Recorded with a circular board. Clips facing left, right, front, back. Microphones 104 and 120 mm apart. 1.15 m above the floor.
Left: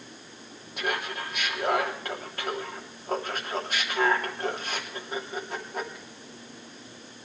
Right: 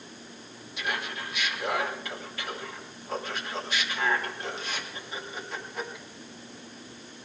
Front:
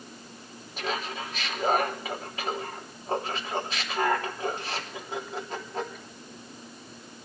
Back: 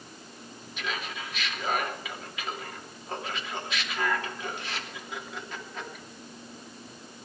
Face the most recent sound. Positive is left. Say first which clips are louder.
# left 3 dB, front 4 dB
turn(degrees=50)